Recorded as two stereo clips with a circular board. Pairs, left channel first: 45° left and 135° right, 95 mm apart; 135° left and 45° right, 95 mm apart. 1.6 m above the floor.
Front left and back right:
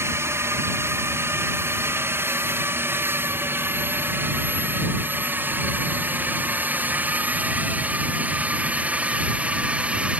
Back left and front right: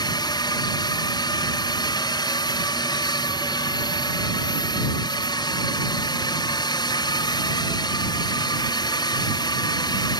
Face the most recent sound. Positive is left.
turn(degrees=150)